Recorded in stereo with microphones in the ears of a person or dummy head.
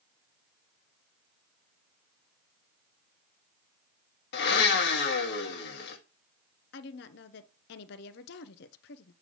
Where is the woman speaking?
60° left (ahead or behind), 0.6 m.